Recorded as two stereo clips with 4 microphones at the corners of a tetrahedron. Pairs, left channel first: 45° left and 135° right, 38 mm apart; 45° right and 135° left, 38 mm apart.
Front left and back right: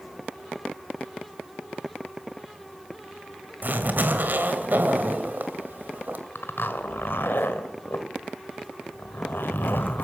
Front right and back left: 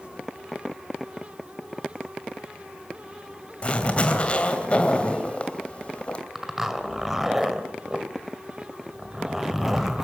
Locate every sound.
3.6 s a zipper: 100° right, 2.5 m
6.3 s a zipper: 55° left, 2 m